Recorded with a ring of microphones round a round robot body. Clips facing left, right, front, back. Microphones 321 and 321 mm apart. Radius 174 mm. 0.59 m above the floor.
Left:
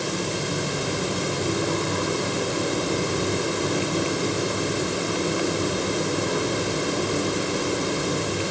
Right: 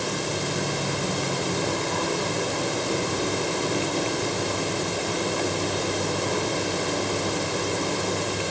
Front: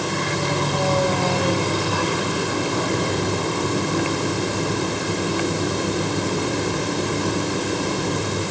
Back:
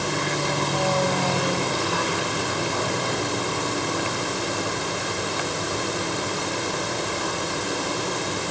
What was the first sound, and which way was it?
Only background noise.